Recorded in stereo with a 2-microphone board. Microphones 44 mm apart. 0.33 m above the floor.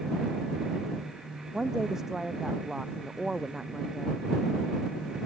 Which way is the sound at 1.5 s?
10° right (ahead or behind).